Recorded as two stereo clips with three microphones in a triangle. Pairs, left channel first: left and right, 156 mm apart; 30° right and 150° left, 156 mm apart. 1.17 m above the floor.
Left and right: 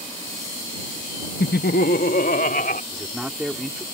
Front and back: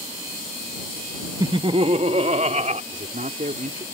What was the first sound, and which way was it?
Laughter, 85° left.